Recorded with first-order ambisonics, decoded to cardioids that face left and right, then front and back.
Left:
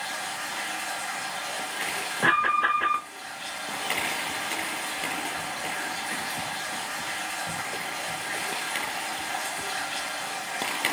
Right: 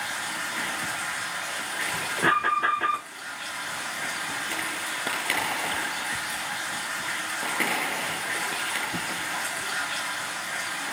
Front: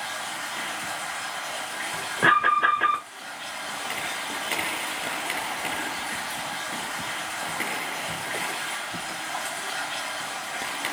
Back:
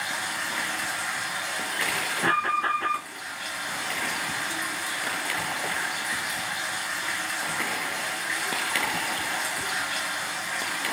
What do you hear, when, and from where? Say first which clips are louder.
0.0 s running water: right 2 dB, back 3 dB; 155° right, 2 m
2.2 s an alarm: left 1 dB, front 6 dB; 10° right, 1.3 m